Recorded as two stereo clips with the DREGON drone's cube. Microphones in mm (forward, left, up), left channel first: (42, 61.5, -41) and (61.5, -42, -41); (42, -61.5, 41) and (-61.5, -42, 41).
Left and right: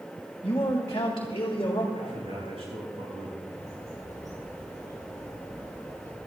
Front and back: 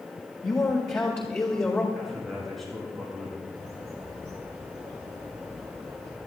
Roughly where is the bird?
Behind right.